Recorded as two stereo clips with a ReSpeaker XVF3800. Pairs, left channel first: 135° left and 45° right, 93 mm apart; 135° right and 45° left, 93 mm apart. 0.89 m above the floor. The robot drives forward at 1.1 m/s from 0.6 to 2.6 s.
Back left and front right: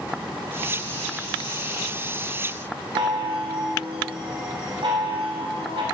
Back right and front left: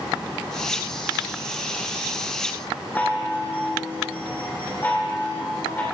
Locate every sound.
3.0 s a chime: 65° right, 2.5 m